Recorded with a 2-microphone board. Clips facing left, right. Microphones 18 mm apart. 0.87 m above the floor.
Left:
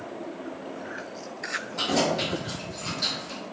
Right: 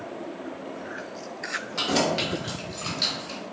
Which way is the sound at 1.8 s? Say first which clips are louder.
Right 1 dB; 50° right (ahead or behind).